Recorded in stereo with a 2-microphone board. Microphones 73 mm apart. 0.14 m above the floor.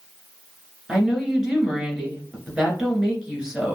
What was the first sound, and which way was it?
A woman speaking, 10° right (ahead or behind).